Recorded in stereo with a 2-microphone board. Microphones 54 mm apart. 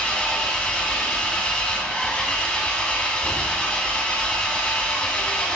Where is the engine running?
20° left (ahead or behind), 1.4 m.